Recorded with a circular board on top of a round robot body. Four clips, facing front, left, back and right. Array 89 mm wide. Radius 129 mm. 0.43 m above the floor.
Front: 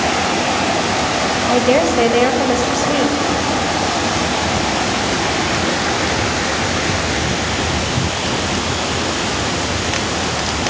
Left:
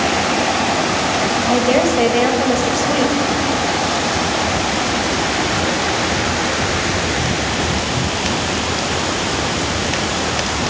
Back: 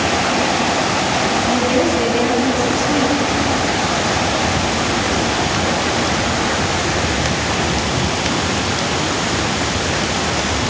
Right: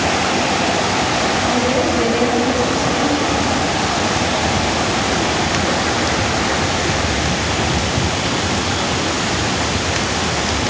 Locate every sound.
1.5 s a woman speaking: 30° left, 3.5 m